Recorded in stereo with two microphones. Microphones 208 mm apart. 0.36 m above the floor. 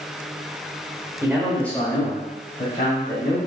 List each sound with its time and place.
1.2 s a man speaking: 15° right (ahead or behind), 1.1 m; by 3.4 s 45° left (ahead or behind), 2.5 m